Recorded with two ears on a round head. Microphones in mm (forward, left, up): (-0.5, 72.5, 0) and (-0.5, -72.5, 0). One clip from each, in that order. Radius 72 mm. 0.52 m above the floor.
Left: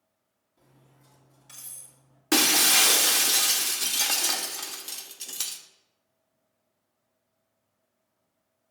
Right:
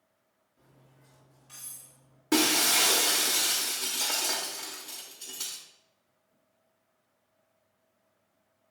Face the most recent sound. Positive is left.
turn(degrees=55)  # may be behind; listen again after turning